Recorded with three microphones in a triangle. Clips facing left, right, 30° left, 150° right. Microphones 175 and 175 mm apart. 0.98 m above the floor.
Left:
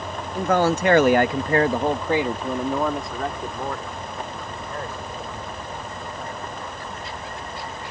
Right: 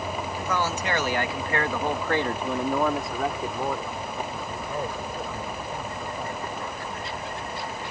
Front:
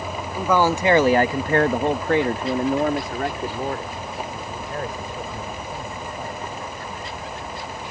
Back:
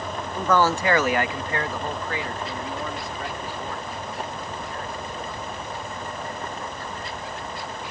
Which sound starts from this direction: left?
A man speaking, at 0.3 s.